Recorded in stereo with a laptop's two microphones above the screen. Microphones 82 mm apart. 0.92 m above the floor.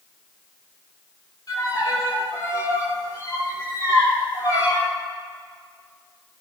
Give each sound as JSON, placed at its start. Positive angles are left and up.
{"t": 1.5, "sound": "a violin", "side_deg": 50, "distance_m": 3.0}